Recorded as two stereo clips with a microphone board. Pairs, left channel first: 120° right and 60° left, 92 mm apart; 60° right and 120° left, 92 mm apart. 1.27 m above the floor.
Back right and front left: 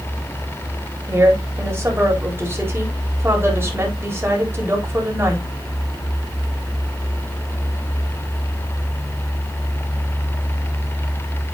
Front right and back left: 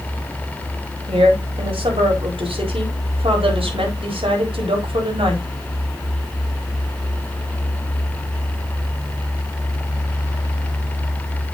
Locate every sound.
1.1 s a woman speaking: 125° left, 4 m